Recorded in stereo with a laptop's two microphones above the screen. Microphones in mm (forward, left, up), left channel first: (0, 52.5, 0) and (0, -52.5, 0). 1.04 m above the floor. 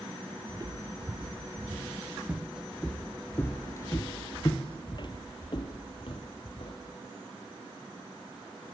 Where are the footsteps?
35° right (ahead or behind), 1.9 m; by 6.8 s 55° left (ahead or behind), 2.5 m.